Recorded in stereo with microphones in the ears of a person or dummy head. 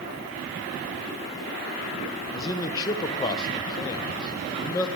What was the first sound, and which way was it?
A man speaking, 20° left (ahead or behind).